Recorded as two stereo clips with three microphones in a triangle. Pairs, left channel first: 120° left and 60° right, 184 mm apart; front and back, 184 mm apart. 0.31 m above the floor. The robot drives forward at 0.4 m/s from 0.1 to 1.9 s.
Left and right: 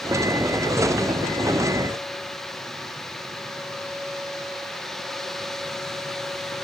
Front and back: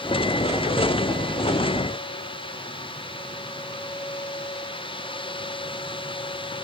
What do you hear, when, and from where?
Only background noise.